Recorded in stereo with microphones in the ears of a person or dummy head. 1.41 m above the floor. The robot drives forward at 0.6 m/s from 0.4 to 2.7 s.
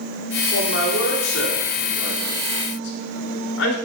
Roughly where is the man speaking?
Left.